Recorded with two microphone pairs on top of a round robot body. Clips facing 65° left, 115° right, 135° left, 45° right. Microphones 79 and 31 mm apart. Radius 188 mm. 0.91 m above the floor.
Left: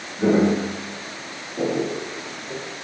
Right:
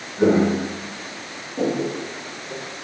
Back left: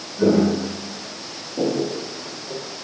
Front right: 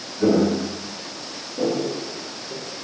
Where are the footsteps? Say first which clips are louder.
Right 1 dB, back left 1 dB; 175° right, 2.5 m; by 2.6 s 120° left, 1.4 m.